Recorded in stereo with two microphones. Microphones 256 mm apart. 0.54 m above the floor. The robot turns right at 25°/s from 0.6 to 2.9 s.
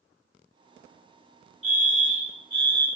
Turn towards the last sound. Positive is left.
turn(degrees=65)